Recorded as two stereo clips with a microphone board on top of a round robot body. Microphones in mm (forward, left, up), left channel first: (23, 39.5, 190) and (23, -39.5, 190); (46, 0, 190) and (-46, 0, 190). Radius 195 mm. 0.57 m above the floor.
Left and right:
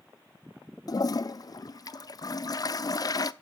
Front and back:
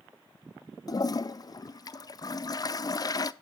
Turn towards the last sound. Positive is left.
turn(degrees=50)